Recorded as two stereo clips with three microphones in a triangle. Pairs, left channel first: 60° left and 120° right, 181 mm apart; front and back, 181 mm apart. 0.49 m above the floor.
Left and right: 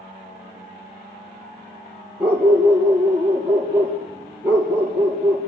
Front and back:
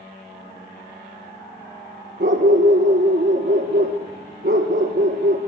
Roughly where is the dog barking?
Behind.